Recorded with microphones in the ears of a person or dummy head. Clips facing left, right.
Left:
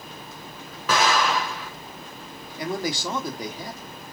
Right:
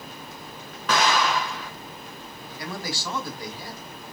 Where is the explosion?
5° left (ahead or behind), 1.5 m.